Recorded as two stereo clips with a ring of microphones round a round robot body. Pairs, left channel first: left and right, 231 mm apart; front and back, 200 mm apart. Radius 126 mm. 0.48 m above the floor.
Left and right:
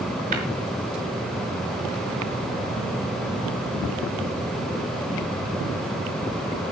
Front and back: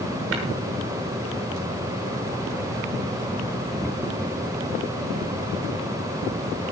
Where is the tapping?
150° right, 6.5 m.